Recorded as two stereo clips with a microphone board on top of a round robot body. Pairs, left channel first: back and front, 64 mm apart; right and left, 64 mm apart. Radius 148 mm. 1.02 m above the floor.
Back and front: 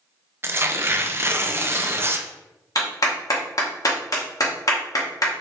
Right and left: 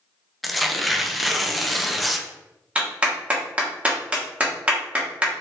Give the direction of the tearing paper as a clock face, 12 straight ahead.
12 o'clock.